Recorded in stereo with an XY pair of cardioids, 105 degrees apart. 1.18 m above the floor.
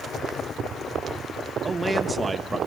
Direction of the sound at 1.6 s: 20° right.